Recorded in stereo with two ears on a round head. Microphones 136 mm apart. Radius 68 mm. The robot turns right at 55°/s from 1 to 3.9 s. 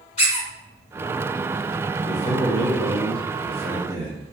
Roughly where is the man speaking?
Behind left.